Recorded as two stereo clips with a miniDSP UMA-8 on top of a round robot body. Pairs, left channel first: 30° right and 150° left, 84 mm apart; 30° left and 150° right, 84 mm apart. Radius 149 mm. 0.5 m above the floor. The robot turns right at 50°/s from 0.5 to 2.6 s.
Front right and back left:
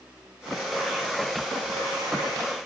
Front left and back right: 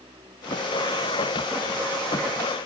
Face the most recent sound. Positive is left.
No sound to turn to.